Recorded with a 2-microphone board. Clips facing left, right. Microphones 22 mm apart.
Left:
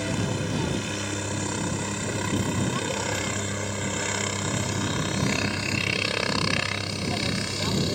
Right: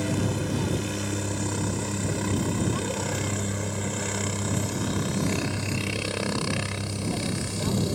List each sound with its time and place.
0.0 s a helicopter: 15° left (ahead or behind); by 8.0 s 30° left (ahead or behind)